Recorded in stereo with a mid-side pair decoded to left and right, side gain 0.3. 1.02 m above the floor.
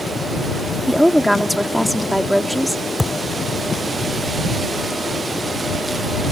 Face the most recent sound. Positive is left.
turn(degrees=15)